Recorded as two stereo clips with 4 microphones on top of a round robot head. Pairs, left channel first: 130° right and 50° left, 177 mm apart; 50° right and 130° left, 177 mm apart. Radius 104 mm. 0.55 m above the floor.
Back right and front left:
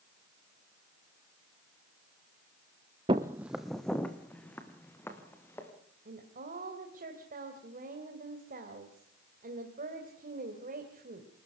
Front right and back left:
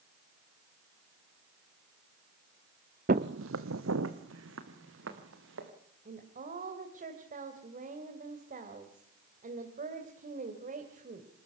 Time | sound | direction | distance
3.1 | footsteps | 105° left | 0.7 m
6.0 | a woman speaking | 90° left | 2.5 m